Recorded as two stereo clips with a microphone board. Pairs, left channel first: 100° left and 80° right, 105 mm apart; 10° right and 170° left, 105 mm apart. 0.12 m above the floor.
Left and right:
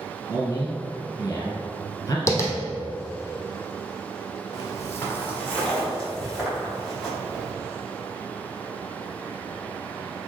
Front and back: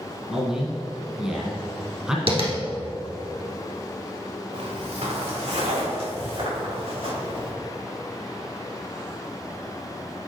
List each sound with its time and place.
0.3 s a man speaking: 95° left, 1.7 m
2.3 s tapping: 160° left, 1.3 m
4.5 s footsteps: 150° left, 1.7 m; by 7.5 s 165° right, 5.5 m